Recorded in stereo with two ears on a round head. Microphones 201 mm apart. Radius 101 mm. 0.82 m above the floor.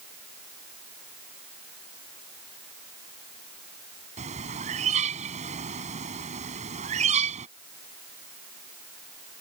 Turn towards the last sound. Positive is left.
turn(degrees=-35)  # may be behind; listen again after turning